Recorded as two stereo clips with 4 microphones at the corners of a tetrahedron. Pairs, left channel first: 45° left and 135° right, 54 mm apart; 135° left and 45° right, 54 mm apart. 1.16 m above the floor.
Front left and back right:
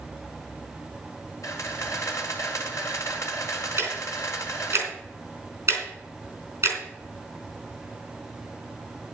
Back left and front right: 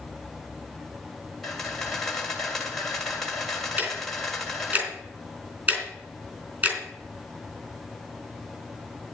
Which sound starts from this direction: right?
Ticking, at 3.8 s.